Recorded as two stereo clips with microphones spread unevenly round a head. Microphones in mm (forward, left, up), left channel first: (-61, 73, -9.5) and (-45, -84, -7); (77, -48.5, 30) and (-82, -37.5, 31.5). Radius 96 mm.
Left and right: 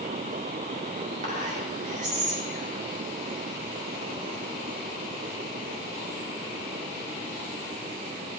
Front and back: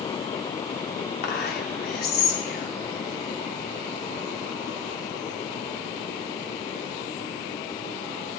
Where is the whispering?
25° right, 2.5 m.